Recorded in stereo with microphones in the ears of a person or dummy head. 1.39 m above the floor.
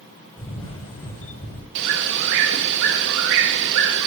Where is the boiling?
I don't hear boiling.